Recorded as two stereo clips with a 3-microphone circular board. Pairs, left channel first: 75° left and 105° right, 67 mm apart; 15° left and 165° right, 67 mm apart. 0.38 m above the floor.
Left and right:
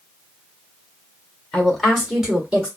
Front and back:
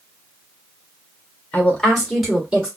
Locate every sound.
1.5 s a woman speaking: 15° left, 1.3 m; by 2.7 s 120° right, 1.3 m